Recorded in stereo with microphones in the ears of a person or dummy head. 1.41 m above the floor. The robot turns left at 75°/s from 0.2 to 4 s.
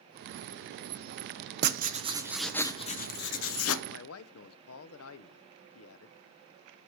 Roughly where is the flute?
I don't hear a flute.